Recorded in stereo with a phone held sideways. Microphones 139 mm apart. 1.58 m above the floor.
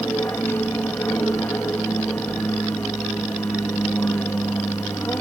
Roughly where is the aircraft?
Centre.